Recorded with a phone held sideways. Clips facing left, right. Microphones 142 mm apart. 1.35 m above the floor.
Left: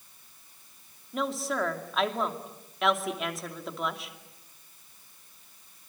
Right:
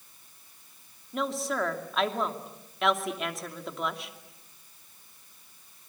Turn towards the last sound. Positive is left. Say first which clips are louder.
# even
turn(degrees=0)  # may be behind; listen again after turning